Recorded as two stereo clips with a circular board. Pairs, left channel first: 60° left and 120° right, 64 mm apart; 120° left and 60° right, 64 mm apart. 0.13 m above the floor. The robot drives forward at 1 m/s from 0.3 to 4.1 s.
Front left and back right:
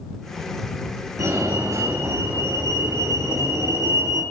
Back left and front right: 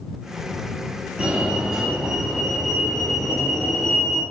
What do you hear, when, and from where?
1.2 s a fire alarm: 130° right, 3.5 m; by 4.2 s 155° right, 5.5 m